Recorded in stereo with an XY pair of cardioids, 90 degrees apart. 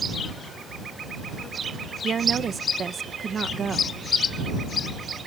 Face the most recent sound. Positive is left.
turn(degrees=-50)